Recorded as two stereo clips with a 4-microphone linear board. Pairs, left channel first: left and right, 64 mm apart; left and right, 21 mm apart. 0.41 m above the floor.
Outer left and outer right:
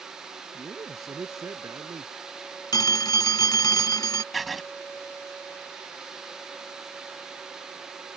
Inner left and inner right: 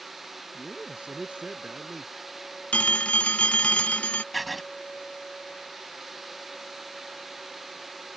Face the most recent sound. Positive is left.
turn(degrees=0)  # may be behind; listen again after turning